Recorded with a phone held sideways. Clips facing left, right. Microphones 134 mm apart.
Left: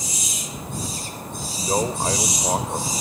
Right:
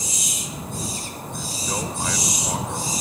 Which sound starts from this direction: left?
A man speaking, at 1.3 s.